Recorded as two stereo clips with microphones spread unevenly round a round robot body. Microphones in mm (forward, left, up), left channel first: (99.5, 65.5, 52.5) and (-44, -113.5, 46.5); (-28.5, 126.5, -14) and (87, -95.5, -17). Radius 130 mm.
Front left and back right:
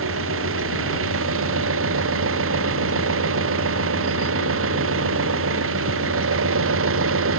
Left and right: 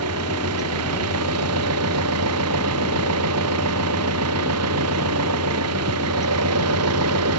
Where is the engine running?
100° right.